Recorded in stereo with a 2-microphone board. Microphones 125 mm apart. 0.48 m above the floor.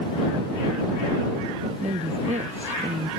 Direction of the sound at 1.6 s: 65° right (ahead or behind).